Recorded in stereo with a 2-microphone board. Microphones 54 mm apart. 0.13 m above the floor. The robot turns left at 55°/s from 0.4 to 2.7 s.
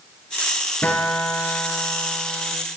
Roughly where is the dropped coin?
I don't hear a dropped coin.